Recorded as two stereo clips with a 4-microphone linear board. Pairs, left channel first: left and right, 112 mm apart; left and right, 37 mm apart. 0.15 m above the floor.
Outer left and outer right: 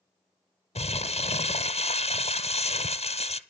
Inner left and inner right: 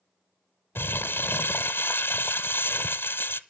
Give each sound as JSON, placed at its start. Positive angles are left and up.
{"t": 0.8, "sound": "crumpling", "side_deg": 70, "distance_m": 0.7}